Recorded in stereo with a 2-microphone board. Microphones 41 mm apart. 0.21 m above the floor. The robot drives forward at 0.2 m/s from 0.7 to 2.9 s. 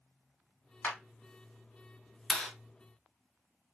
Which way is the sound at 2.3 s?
15° left (ahead or behind).